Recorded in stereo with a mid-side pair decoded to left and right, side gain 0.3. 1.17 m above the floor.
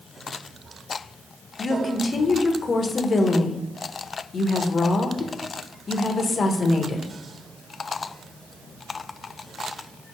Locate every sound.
1.6 s a woman speaking: 60° left, 0.7 m